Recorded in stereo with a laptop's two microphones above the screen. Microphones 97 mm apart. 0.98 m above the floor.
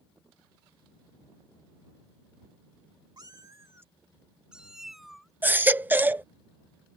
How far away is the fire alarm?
No fire alarm in this recording.